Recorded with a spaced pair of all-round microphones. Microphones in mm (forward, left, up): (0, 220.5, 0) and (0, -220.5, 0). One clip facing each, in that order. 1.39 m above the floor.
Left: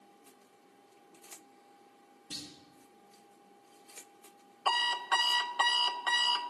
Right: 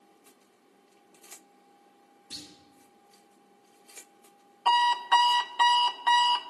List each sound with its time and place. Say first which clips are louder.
2.3 s a clunk: left 1 dB; 50° left (ahead or behind), 4.5 m
4.7 s an alarm clock: right 7 dB; 10° right (ahead or behind), 0.5 m